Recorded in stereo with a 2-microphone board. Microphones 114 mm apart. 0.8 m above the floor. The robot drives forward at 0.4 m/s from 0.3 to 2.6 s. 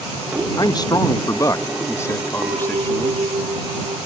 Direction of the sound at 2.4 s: 50° right (ahead or behind).